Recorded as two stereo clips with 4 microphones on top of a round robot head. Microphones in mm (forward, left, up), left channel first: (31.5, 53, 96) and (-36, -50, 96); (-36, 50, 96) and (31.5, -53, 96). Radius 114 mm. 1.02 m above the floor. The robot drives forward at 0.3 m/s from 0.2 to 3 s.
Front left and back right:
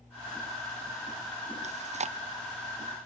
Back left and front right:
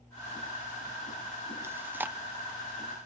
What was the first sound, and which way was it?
Chewing, 125° right.